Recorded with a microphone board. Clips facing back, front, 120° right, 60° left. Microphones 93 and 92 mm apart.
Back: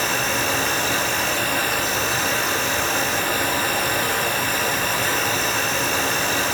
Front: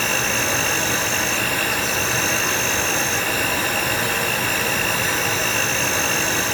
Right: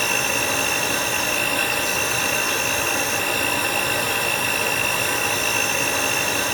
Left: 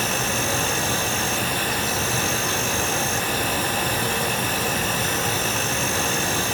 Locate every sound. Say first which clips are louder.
0.0 s an insect: even, right 1 dB; 100° right, 3.5 m